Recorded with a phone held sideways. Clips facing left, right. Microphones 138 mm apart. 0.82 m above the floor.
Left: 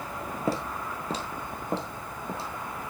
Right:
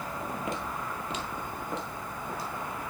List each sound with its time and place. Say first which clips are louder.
0.5 s footsteps: left 4 dB; 35° left (ahead or behind), 0.9 m; by 2.5 s 30° left (ahead or behind), 1.8 m